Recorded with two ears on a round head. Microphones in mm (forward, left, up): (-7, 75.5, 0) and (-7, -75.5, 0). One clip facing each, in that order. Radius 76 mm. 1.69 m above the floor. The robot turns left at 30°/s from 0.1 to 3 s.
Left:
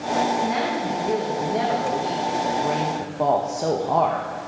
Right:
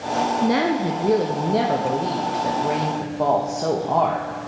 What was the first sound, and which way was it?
A woman speaking, 105° right.